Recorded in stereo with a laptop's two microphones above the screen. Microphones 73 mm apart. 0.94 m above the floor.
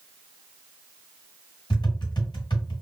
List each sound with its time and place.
1.7 s tapping: 85° left, 2 m